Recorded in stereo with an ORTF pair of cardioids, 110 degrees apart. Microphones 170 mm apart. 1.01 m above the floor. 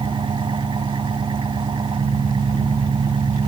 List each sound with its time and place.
0.0 s an engine running: 30° right